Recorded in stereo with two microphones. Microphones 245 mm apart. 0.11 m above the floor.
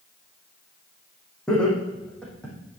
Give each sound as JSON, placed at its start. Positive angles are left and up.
{"t": 1.5, "sound": "laughter", "side_deg": 5, "distance_m": 6.0}